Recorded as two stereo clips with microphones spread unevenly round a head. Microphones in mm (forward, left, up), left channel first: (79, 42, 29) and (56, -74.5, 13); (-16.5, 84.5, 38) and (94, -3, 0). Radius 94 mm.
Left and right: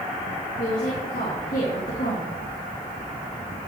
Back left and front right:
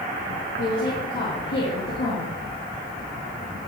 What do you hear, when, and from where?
0.6 s a woman speaking: 120° left, 2.5 m